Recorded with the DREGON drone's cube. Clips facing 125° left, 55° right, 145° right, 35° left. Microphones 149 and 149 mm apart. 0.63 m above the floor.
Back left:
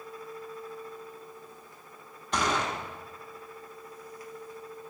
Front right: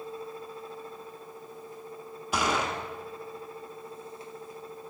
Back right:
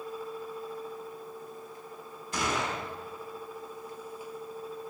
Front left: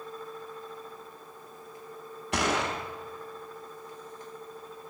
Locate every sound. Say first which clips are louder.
2.3 s a gunshot: front right 1 dB, front left 3 dB; 25° left, 0.7 m